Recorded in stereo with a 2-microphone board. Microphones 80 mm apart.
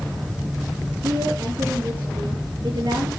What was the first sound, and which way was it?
A woman speaking, 65° right (ahead or behind).